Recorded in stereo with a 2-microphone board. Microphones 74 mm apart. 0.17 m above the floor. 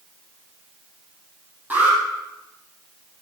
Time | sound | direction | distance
1.7 | an alarm | 25° right (ahead or behind) | 7 m